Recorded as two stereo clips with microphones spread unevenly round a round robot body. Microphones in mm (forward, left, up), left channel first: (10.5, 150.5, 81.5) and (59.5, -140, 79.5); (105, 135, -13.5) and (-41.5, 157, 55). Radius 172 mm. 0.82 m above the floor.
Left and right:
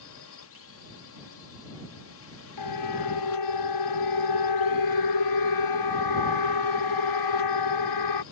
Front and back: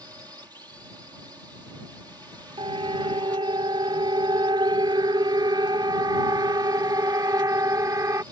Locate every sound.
0.0 s a drone: 90° left
2.6 s a siren: 120° left; by 8.2 s 105° left